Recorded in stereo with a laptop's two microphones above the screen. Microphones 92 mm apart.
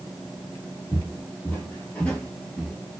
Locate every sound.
0.9 s footsteps: 25° left (ahead or behind), 1.4 m; by 2.8 s 5° left (ahead or behind), 0.9 m